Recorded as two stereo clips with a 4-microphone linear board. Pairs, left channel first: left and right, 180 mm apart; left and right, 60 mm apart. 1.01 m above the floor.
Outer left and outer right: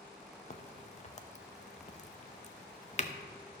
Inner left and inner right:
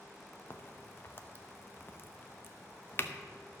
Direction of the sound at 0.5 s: 40° left (ahead or behind).